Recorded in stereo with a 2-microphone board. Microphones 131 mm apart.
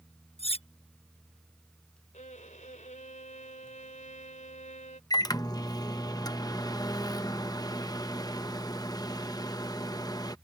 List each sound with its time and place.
0.4 s cutlery clinking: 45° left (ahead or behind)
2.1 s a violin: 70° left (ahead or behind)
5.1 s a microwave: 30° left (ahead or behind)